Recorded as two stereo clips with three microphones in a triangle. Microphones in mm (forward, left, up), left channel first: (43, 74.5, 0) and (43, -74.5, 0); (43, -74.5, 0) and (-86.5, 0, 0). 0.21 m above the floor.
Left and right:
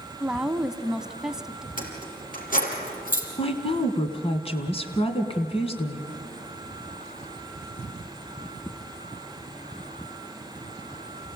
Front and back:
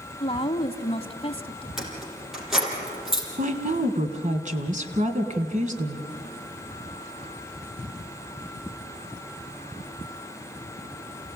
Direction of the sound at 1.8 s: 60° left.